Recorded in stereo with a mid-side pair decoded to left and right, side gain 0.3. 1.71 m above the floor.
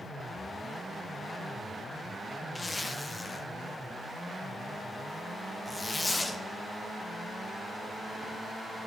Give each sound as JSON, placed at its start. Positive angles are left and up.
{"t": 2.5, "sound": "a zipper", "azimuth_deg": 35, "distance_m": 0.9}